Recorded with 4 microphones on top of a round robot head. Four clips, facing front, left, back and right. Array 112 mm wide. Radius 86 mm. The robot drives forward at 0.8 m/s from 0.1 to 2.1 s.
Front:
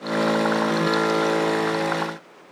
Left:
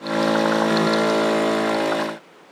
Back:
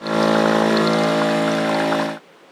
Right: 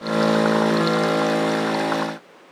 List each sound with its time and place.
Only background noise.